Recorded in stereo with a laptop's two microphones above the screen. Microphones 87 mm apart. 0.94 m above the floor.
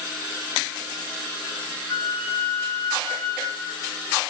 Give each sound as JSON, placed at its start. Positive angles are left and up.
{"t": 1.9, "sound": "a flute", "side_deg": 65, "distance_m": 6.0}